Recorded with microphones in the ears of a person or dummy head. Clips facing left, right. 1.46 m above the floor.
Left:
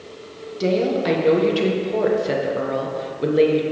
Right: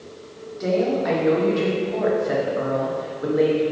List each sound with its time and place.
0.6 s a woman speaking: 40° left (ahead or behind), 1.3 m